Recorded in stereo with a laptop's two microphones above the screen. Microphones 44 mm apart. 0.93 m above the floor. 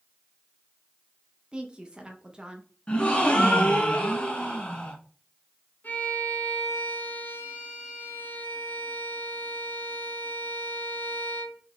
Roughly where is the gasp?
Left.